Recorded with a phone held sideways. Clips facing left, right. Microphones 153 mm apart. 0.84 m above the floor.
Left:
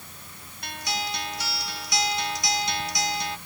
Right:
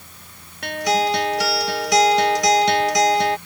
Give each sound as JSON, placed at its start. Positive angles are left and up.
{"t": 0.6, "sound": "a guitar", "side_deg": -80}